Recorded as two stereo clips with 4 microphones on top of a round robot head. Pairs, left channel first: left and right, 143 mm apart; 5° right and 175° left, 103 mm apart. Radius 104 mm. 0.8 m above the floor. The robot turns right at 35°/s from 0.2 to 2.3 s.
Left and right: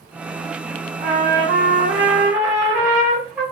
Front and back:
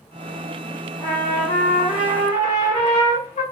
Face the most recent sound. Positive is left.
turn(degrees=-5)